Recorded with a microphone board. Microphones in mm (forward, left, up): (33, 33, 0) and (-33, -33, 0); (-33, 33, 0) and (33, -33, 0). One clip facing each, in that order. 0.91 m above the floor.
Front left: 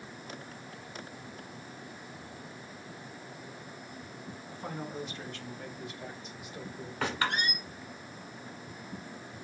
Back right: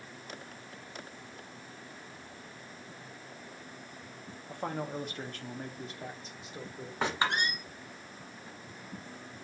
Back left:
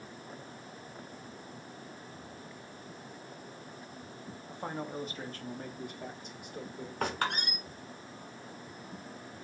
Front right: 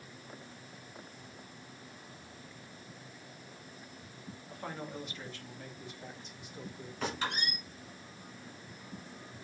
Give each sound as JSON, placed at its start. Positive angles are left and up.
{"t": 4.5, "sound": "a man speaking", "azimuth_deg": -160, "distance_m": 0.9}
{"t": 7.0, "sound": "a squeak", "azimuth_deg": 160, "distance_m": 1.8}